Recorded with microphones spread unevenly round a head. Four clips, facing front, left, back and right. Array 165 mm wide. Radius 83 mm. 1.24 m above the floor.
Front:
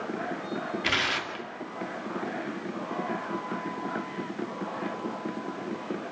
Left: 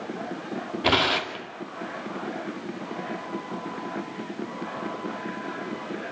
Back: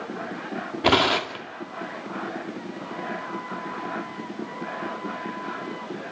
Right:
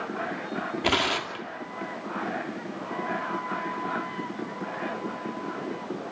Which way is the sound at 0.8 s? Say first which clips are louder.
Left 4 dB, back 15 dB; 170° left.